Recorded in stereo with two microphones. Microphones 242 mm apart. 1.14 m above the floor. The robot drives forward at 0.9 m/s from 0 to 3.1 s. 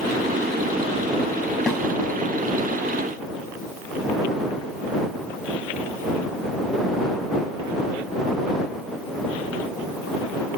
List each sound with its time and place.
1.7 s a snare drum: centre (ahead or behind), 2.5 m